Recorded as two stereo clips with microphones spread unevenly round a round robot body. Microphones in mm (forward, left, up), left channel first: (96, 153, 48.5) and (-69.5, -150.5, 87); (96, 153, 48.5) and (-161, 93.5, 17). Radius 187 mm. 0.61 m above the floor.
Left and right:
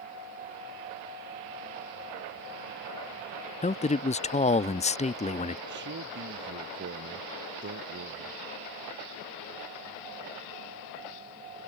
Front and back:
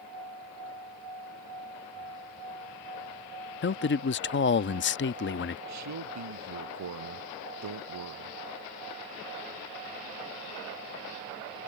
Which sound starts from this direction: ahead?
A man speaking, at 3.6 s.